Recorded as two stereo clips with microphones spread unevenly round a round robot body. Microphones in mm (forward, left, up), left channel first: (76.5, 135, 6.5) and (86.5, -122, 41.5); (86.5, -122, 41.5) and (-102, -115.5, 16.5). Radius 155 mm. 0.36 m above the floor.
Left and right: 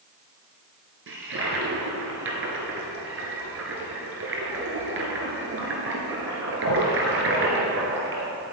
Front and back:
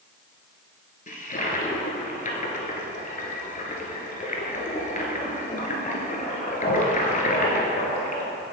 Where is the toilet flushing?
50° right, 1.8 m.